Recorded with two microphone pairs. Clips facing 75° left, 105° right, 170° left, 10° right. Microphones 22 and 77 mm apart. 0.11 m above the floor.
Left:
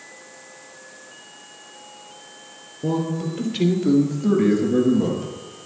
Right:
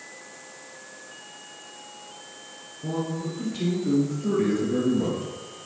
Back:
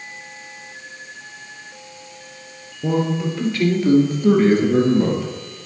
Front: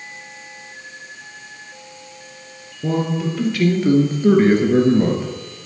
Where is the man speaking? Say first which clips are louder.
Left 6 dB, even; 80° left, 2 m; by 5.3 s 15° right, 2 m.